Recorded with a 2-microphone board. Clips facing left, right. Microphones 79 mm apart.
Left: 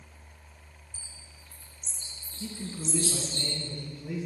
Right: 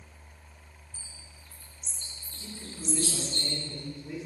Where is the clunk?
No clunk in this recording.